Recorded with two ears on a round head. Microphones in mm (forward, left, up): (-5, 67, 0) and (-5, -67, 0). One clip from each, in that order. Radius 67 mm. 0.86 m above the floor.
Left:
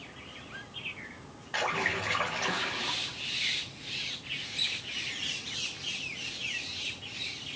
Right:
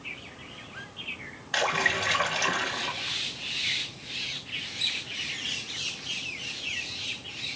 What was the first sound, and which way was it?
A splash, 70° right (ahead or behind).